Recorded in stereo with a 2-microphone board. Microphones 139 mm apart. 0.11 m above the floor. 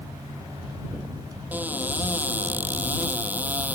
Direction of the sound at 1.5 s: 10° right (ahead or behind).